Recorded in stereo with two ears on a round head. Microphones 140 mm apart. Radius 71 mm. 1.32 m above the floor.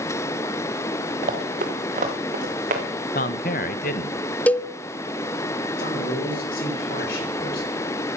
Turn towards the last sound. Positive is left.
turn(degrees=65)  # may be behind; listen again after turning